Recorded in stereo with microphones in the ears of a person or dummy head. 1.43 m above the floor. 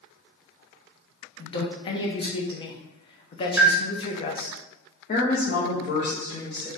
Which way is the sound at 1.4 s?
20° left (ahead or behind).